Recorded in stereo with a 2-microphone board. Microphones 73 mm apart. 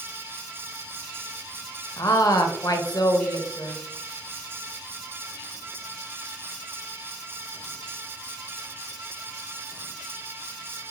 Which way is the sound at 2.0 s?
50° left (ahead or behind).